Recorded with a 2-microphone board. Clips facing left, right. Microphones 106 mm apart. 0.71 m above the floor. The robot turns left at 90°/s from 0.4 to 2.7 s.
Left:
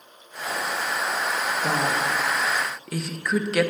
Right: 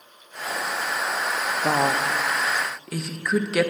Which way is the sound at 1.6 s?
40° right (ahead or behind).